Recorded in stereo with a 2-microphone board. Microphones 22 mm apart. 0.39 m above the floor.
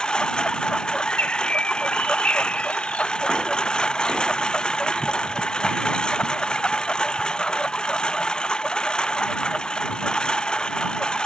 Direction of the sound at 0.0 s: 40° left (ahead or behind).